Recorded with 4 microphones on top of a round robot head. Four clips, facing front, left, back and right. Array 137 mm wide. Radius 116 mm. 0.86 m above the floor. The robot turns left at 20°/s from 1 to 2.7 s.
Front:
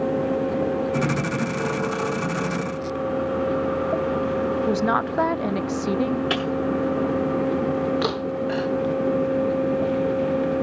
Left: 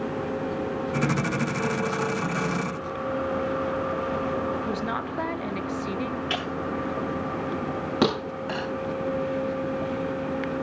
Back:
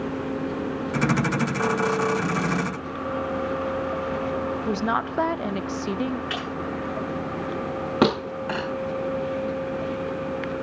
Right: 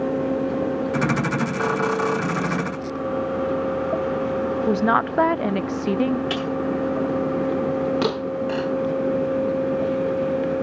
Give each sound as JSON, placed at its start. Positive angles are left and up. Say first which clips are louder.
{"t": 4.7, "sound": "a woman speaking", "louder": "right 9 dB, front 3 dB", "azimuth_deg": -75, "distance_m": 0.6}
{"t": 6.3, "sound": "breaking glass", "louder": "right 4 dB, front 6 dB", "azimuth_deg": -20, "distance_m": 6.0}
{"t": 8.0, "sound": "a thud", "louder": "right 2 dB, back 2 dB", "azimuth_deg": 160, "distance_m": 6.5}